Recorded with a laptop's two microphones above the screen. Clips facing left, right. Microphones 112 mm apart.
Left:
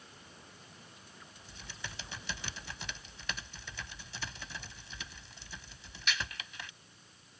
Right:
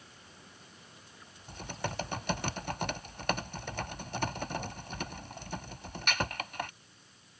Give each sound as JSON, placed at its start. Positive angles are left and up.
{"t": 1.5, "sound": "typing on a keyboard", "side_deg": -55}